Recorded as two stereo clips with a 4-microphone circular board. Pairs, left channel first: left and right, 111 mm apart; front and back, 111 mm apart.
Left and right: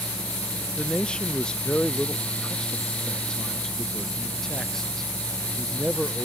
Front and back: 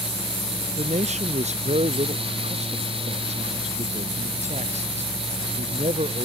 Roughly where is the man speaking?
Behind.